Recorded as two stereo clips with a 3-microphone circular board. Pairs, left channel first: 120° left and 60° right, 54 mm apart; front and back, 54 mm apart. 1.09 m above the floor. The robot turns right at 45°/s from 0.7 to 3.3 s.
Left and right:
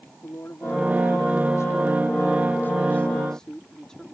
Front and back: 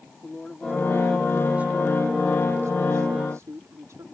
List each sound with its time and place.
0.2 s a woman speaking: 80° left; by 4.0 s 165° right